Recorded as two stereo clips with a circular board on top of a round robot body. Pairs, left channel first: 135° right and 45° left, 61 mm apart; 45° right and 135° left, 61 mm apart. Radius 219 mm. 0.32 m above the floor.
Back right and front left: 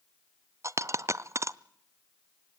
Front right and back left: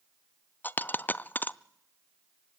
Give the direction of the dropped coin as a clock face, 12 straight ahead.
12 o'clock.